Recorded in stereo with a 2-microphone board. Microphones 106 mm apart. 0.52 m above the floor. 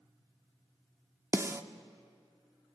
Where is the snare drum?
25° right (ahead or behind), 0.7 m.